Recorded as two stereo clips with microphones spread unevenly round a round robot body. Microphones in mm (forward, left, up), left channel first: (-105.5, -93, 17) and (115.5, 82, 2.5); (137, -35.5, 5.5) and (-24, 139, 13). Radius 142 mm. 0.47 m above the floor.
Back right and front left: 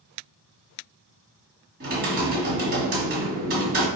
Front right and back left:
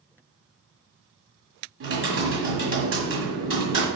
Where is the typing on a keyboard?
95° left, 1.8 m.